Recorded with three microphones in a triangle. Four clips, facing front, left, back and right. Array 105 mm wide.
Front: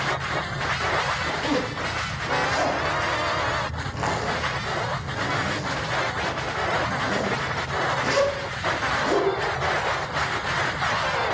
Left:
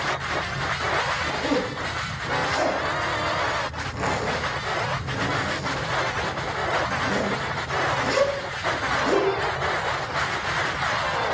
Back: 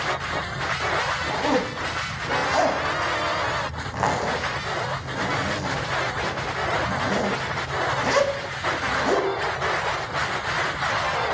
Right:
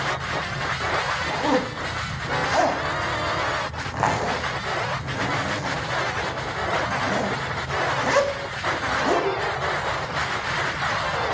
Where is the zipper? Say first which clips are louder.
Right 5 dB, back 2 dB; 120° right, 1.0 m.